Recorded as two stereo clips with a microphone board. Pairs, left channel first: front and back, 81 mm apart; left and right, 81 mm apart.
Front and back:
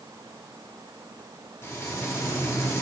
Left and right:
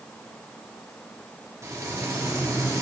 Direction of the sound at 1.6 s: 50° right.